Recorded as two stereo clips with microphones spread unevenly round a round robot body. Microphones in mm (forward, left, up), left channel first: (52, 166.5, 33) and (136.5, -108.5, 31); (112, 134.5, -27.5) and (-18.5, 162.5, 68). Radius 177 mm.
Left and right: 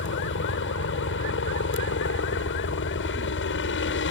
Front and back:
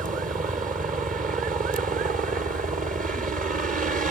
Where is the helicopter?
125° left.